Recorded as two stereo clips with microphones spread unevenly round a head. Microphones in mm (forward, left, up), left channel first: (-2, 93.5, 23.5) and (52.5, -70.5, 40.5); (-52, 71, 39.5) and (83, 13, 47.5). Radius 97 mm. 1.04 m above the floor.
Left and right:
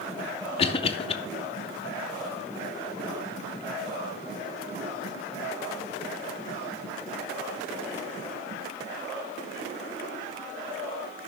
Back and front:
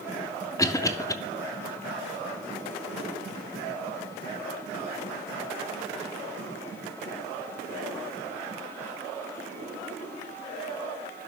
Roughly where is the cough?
Left.